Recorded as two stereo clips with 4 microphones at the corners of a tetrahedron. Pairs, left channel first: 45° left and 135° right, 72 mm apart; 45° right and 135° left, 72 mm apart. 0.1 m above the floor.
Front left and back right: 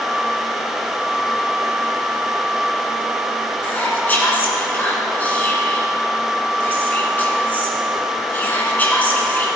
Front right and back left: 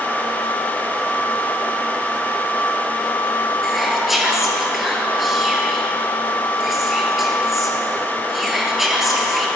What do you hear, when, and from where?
3.6 s whispering: 50° left, 1.9 m